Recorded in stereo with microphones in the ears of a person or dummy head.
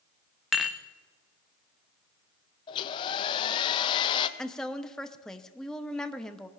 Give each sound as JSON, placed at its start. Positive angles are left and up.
{"t": 0.5, "sound": "dishes clattering", "side_deg": -5, "distance_m": 0.7}
{"t": 2.7, "sound": "a hair dryer", "side_deg": 35, "distance_m": 0.7}
{"t": 4.4, "sound": "a woman speaking", "side_deg": 10, "distance_m": 0.8}